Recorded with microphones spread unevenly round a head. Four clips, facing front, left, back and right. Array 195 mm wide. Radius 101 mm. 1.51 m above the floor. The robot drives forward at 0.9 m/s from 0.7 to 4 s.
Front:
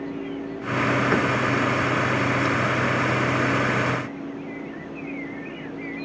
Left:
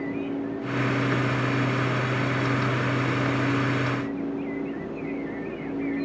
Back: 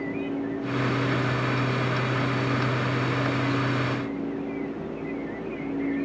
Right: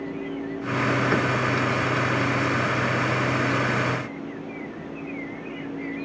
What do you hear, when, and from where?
Only background noise.